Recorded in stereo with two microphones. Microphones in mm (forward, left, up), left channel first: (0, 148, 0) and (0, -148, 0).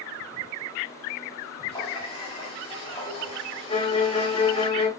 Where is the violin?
20° left (ahead or behind), 1.9 m.